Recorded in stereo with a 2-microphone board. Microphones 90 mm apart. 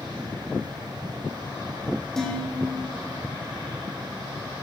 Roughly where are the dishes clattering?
Centre.